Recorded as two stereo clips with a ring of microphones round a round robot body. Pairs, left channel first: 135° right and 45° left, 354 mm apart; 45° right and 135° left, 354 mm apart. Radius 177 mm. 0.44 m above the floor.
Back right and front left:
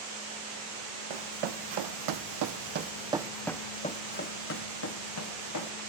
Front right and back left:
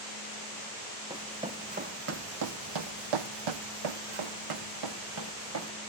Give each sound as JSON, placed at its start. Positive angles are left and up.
{"t": 1.1, "sound": "running footsteps", "azimuth_deg": 55, "distance_m": 1.5}